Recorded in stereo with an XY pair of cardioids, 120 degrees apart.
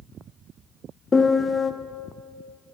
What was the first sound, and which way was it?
A piano, 30° left.